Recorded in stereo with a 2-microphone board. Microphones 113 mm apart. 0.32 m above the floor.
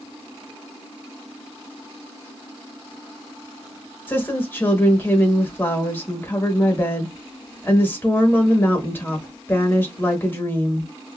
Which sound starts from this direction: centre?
A woman speaking, at 4.1 s.